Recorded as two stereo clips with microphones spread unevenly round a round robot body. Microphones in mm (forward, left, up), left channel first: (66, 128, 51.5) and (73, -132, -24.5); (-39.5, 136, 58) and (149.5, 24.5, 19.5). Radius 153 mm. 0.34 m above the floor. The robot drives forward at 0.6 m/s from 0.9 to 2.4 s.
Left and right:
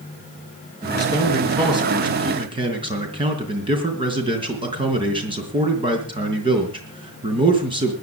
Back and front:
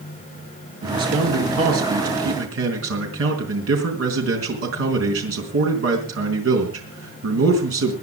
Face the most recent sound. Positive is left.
turn(degrees=-25)